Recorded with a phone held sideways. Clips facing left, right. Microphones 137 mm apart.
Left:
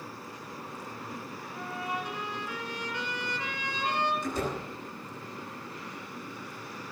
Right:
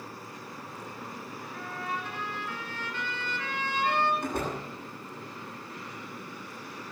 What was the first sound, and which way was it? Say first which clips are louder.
A trumpet: left 1 dB; 15° left (ahead or behind).